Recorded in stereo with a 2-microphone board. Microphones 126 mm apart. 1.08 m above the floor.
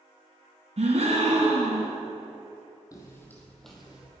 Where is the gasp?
60° right (ahead or behind), 2 m.